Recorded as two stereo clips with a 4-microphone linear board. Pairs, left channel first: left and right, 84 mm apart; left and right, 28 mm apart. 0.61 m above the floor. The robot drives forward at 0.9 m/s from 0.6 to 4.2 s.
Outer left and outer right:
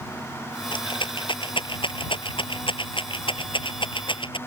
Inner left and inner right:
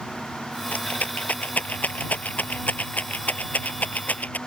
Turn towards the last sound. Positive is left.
turn(degrees=75)  # may be behind; listen again after turning